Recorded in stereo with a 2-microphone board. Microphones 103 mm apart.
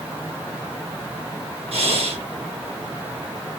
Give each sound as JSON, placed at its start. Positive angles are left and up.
{"t": 1.7, "sound": "breathing", "side_deg": -75, "distance_m": 1.3}